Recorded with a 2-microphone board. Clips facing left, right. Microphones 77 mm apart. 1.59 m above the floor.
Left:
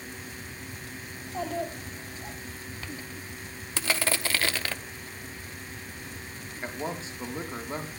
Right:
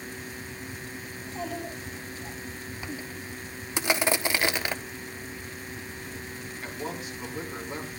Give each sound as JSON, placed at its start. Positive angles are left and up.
{"t": 1.1, "sound": "a child speaking", "side_deg": 50, "distance_m": 8.5}
{"t": 3.8, "sound": "crushing", "side_deg": -15, "distance_m": 0.7}
{"t": 6.6, "sound": "a man speaking", "side_deg": 30, "distance_m": 4.5}